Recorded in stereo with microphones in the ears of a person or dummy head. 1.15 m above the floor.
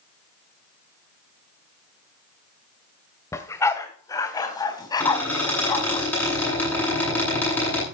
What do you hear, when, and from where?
3.3 s a dog barking: 15° left (ahead or behind), 1.7 m; by 6.0 s 20° left (ahead or behind), 3 m
5.0 s a squeak: 10° left (ahead or behind), 10 m